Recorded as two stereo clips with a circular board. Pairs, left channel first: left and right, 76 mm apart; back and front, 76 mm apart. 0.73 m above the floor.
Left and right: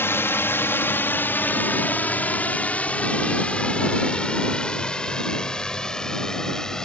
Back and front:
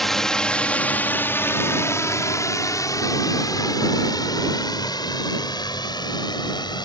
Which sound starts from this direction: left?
A drone, at 0.0 s.